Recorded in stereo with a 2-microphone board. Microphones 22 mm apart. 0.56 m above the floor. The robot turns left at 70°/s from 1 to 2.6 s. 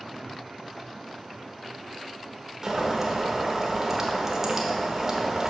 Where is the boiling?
25° right (ahead or behind), 1.0 m.